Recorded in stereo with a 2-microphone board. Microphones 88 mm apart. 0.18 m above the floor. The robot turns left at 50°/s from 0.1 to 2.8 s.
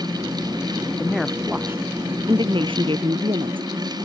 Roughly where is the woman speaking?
Ahead.